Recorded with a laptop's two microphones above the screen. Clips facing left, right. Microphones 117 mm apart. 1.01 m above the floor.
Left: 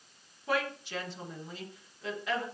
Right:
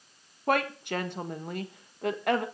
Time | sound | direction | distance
0.5 | a woman speaking | 60° right (ahead or behind) | 1.3 m